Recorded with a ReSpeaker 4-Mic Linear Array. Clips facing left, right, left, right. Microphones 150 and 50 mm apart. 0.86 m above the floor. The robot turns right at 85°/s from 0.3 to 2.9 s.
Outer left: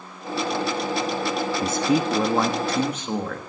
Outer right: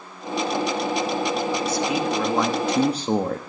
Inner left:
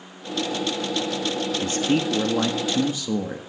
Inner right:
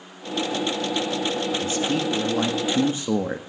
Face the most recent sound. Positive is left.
turn(degrees=-140)